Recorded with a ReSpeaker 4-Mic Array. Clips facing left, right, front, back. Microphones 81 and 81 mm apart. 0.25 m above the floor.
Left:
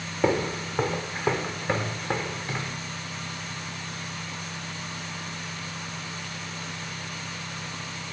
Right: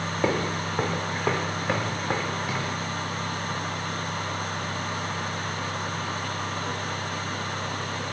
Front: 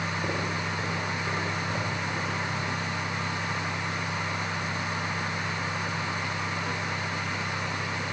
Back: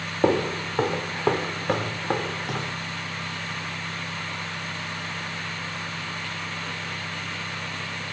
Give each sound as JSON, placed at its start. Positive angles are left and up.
{"t": 0.2, "sound": "footsteps", "azimuth_deg": 180, "distance_m": 2.0}